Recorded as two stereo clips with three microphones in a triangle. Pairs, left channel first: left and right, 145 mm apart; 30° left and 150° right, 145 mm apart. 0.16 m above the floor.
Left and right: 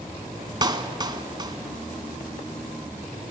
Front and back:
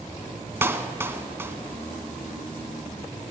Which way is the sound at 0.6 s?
90° right.